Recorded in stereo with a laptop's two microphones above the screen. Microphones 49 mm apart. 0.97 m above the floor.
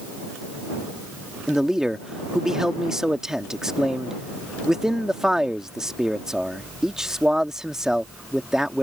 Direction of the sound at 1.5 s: 15° right (ahead or behind).